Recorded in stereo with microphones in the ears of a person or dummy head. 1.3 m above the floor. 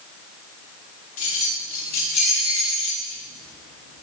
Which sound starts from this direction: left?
Keys jangling, at 1.2 s.